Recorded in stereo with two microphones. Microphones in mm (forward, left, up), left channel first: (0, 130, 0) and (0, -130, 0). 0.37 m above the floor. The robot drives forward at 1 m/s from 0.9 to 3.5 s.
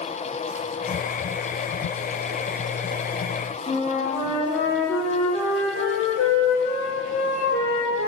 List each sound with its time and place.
3.7 s a flute: 35° left (ahead or behind), 4 m